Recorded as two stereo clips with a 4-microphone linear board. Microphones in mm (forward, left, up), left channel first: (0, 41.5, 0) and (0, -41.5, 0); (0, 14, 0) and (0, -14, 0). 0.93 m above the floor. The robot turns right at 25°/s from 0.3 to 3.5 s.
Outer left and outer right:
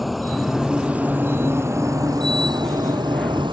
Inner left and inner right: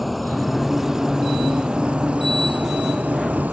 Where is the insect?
Straight behind; by 3.5 s 100° right.